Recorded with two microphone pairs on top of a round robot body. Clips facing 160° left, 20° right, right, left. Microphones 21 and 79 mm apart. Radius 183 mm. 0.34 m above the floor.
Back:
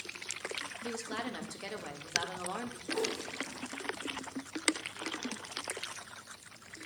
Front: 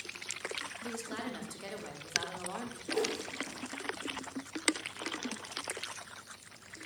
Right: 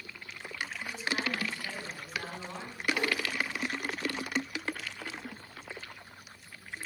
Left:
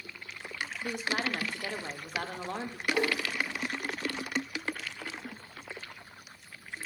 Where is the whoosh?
30° left, 3 m.